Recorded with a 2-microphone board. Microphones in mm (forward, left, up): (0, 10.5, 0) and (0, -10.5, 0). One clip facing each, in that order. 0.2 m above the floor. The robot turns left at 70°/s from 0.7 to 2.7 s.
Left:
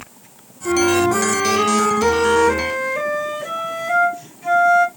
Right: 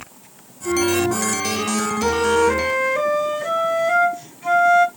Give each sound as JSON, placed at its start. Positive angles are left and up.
{"t": 0.7, "sound": "a flute", "azimuth_deg": 120, "distance_m": 0.9}